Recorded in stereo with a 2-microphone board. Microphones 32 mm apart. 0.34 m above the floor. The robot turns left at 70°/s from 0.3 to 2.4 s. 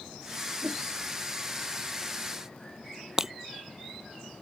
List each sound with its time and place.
0.6 s a whoosh: 55° right (ahead or behind); by 0.8 s 70° right (ahead or behind)
3.2 s breaking glass: 15° right (ahead or behind)